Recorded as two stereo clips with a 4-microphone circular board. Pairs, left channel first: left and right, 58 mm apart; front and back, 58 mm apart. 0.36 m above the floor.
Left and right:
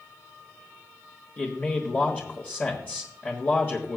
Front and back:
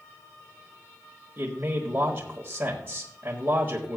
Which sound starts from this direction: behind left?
A man speaking, at 1.4 s.